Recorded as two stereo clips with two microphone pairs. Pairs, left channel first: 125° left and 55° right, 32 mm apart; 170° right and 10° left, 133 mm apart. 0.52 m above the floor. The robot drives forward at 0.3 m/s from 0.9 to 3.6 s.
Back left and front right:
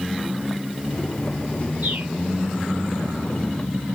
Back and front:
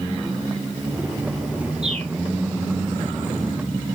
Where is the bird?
30° right, 2.5 m.